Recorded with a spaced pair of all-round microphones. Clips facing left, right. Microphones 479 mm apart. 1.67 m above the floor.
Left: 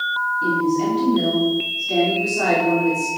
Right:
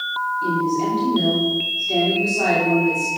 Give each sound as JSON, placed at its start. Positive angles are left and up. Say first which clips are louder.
{"t": 0.4, "sound": "a woman speaking", "louder": "left 2 dB", "side_deg": 35, "distance_m": 5.5}